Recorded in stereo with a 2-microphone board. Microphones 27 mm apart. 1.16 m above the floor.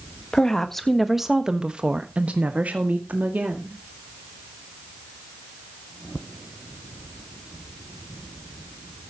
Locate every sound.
0.3 s a woman speaking: 20° left (ahead or behind), 1.4 m; by 3.8 s 75° right (ahead or behind), 2.5 m